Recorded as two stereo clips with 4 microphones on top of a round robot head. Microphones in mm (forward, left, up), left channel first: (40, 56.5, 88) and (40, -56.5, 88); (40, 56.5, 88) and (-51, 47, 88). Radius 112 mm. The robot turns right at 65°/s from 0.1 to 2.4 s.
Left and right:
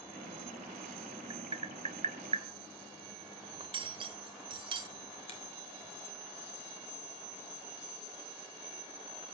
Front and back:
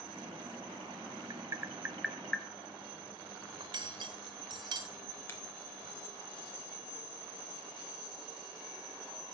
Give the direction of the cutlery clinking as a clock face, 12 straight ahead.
4 o'clock.